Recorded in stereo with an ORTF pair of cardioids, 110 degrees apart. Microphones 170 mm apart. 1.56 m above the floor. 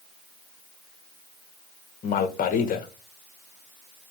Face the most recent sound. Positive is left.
turn(degrees=60)